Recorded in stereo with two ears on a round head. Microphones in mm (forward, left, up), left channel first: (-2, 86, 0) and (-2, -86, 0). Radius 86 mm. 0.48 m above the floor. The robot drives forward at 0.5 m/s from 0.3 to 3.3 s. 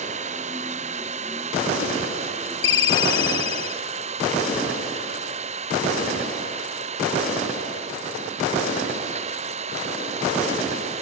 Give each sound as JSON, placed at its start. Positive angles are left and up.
{"t": 0.0, "sound": "an engine running", "side_deg": -35}
{"t": 2.6, "sound": "a ringtone", "side_deg": 70}